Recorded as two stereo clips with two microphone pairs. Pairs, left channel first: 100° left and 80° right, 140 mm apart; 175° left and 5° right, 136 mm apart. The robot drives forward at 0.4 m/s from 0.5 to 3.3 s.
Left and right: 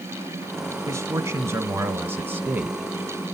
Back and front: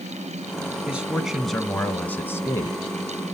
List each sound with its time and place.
0.9 s a man speaking: 70° right, 1.3 m; by 2.9 s 145° right, 1.4 m